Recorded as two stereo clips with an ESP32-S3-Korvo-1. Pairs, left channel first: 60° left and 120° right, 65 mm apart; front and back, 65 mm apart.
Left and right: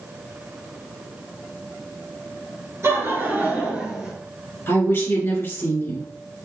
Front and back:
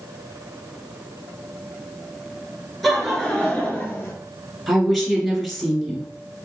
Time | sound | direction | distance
2.8 | laughter | 90° right | 1.9 m
4.7 | a woman speaking | 90° left | 1.7 m